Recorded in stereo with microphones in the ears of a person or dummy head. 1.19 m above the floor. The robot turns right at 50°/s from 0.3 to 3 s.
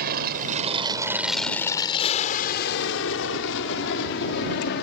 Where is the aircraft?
50° right (ahead or behind); by 4.8 s 55° left (ahead or behind).